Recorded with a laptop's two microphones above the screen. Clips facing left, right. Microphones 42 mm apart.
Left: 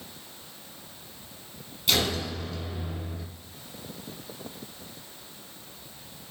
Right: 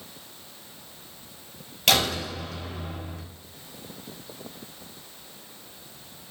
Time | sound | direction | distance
1.9 | a door slam | 85° right | 4 m